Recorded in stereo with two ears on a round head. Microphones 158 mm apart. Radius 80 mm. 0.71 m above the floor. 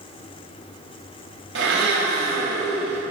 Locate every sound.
1.6 s a blender: 80° right, 4.5 m